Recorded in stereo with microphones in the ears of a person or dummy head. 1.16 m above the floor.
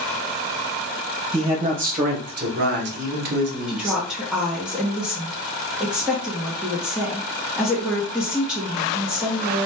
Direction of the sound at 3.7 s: Centre (ahead or behind).